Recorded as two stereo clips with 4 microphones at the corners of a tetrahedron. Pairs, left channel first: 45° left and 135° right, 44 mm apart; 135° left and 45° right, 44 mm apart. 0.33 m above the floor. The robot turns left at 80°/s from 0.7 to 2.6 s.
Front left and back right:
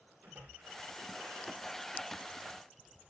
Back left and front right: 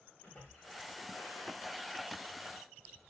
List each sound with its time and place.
0.2 s a splash: 170° right, 9 m; by 1.8 s 105° left, 9 m